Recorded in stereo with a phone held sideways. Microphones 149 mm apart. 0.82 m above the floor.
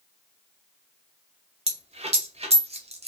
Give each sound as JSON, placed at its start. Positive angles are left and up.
{"t": 1.7, "sound": "a dropped coin", "side_deg": -45, "distance_m": 0.6}